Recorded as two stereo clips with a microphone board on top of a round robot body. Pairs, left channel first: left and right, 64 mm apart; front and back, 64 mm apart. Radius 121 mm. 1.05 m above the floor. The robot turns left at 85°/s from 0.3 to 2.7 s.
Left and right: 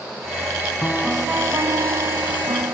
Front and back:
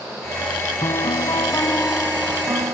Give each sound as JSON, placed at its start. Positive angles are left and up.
{"t": 0.8, "sound": "a piano", "azimuth_deg": 20}